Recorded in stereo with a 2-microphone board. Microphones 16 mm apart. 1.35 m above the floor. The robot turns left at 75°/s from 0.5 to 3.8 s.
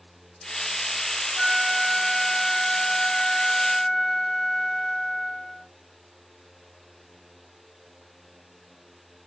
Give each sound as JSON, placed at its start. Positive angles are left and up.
{"t": 1.4, "sound": "a flute", "azimuth_deg": -135, "distance_m": 1.0}